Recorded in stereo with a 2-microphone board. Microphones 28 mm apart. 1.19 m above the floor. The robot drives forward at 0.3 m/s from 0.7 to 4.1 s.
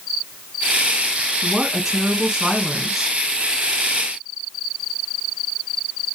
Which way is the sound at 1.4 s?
15° right (ahead or behind).